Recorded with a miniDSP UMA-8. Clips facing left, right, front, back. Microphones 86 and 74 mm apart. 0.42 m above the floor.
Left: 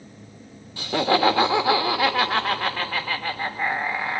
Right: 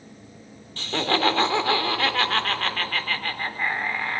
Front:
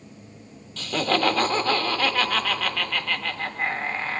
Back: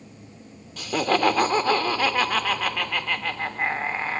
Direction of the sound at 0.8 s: 135° left.